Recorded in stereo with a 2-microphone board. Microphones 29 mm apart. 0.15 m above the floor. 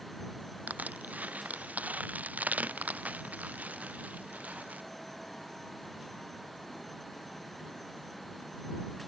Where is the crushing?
65° right (ahead or behind).